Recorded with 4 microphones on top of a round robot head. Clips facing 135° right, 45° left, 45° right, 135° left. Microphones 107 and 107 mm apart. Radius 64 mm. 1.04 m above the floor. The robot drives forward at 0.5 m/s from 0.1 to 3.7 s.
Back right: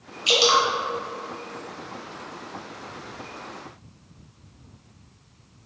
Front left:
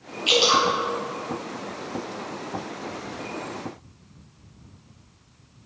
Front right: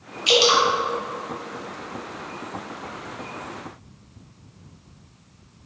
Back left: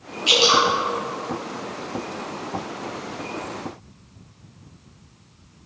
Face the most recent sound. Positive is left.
turn(degrees=-125)